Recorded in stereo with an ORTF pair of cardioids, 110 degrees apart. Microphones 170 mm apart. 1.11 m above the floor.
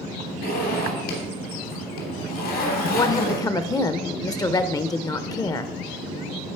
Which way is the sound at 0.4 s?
70° left.